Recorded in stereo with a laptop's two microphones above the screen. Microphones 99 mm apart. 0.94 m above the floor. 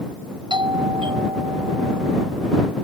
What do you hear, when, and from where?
0.5 s a doorbell: 55° right (ahead or behind)